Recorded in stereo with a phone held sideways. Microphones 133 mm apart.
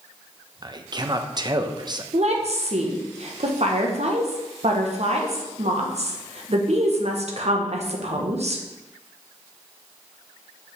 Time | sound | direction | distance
0.6 | a man speaking | 35° right (ahead or behind) | 0.7 m
2.1 | a woman speaking | 60° right (ahead or behind) | 1.2 m